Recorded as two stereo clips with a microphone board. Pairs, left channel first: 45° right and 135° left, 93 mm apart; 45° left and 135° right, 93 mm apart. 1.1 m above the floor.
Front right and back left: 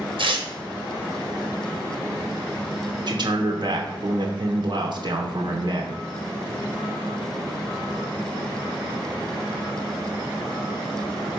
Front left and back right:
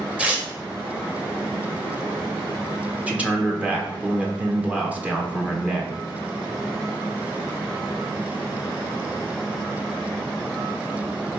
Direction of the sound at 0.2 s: 150° left.